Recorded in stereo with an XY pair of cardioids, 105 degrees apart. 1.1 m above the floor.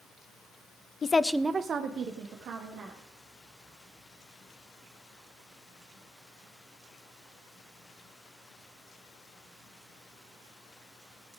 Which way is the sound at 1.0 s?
35° left.